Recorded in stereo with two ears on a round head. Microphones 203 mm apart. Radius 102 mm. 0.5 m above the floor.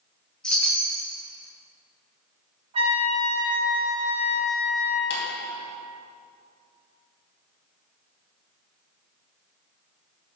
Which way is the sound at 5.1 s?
55° left (ahead or behind).